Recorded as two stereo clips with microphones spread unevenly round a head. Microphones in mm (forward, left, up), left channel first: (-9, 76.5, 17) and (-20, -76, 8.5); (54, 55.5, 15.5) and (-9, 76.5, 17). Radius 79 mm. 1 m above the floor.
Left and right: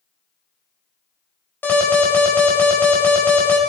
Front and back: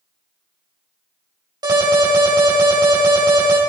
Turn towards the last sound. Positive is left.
turn(degrees=165)